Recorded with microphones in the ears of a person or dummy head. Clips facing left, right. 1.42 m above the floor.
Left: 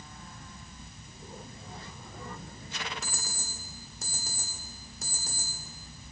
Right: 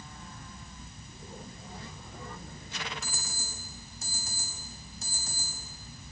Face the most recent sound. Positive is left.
turn(degrees=55)  # may be behind; listen again after turning